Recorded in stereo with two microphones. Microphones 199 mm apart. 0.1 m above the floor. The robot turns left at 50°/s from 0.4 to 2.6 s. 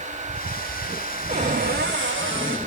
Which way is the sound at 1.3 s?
30° right.